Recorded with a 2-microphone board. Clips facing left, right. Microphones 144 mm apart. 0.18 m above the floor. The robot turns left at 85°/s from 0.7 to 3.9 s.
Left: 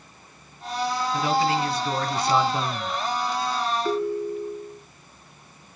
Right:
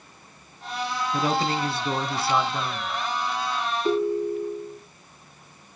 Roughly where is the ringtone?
Centre.